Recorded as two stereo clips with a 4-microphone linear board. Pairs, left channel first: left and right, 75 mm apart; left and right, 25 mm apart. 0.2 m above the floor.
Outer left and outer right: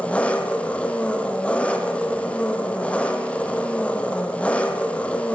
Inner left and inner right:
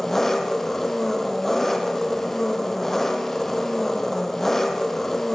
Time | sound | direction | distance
0.0 | an engine running | 15° left (ahead or behind) | 3.5 m